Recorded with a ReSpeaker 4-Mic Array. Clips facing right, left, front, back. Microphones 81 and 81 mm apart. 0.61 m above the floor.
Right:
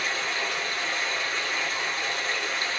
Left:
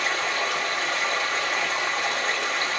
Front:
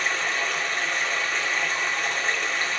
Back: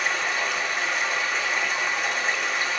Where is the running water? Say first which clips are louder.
Left 4 dB, back 1 dB; 95° left, 0.7 m.